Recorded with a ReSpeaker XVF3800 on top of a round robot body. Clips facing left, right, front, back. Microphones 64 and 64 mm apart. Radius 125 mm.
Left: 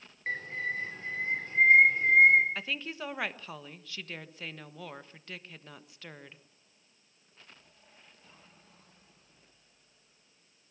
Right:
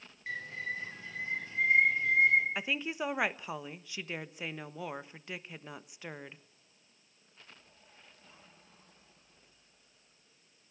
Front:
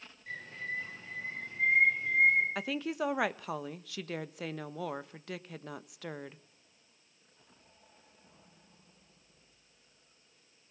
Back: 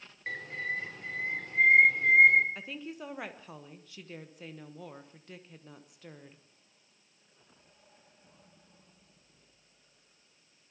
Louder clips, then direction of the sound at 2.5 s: Right 2 dB, front 7 dB; 15° right.